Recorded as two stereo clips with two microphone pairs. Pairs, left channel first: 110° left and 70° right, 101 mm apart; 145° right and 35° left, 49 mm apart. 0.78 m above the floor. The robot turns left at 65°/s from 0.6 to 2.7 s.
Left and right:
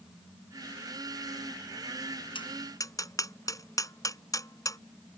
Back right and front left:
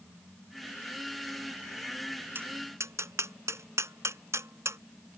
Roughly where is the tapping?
Left.